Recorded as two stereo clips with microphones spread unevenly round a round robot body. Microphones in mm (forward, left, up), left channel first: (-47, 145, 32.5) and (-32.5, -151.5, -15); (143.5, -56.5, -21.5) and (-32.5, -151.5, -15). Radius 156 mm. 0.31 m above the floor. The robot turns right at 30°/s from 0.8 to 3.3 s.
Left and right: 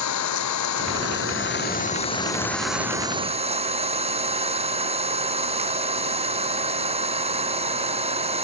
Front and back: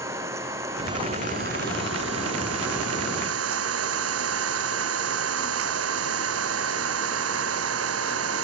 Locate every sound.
0.0 s an engine running: 125° left; by 8.4 s 160° right